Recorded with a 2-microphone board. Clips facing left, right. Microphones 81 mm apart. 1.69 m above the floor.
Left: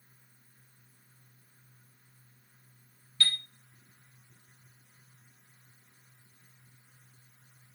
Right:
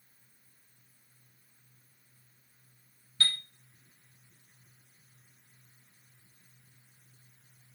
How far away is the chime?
About 1.2 m.